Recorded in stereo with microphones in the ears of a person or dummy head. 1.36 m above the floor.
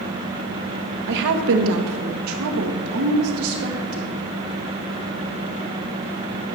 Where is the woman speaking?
60° right (ahead or behind), 1.5 m; by 4.1 s 70° right (ahead or behind), 2.5 m.